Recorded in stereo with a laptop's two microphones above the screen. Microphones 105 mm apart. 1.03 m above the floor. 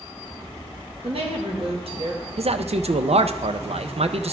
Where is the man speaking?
75° right (ahead or behind), 0.5 m.